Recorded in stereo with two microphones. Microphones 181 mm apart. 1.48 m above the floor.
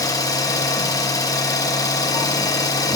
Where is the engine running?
20° left (ahead or behind), 0.8 m.